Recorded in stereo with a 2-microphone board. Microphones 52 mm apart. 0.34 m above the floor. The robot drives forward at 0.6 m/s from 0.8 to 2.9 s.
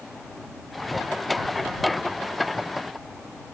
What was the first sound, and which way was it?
Only background noise.